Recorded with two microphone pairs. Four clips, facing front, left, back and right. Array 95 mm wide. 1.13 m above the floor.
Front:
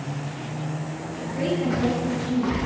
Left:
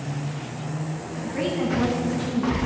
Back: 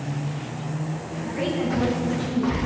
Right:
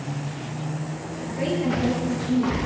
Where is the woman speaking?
125° left, 8 m.